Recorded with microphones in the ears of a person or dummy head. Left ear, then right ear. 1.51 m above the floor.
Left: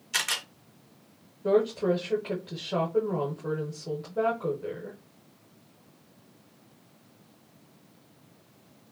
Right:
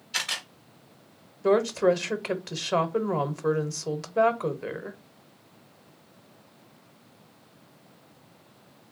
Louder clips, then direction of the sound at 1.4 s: Right 3 dB; 60° right (ahead or behind).